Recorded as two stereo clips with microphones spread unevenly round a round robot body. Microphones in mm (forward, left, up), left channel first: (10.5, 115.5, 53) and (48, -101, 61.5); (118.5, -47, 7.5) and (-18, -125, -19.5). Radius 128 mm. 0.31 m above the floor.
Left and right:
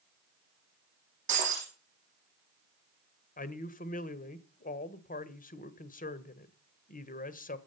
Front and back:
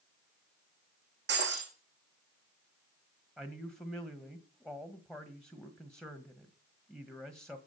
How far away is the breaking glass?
About 6.5 m.